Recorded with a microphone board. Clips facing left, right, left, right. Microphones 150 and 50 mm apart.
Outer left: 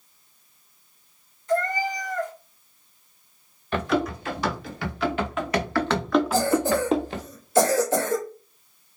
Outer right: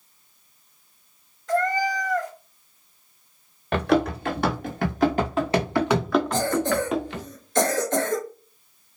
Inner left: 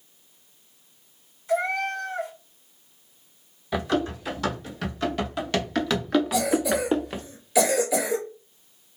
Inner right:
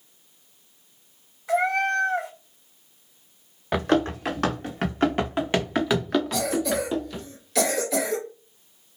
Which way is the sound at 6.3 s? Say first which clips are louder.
Outer left 1 dB, inner left 2 dB; 5° left (ahead or behind).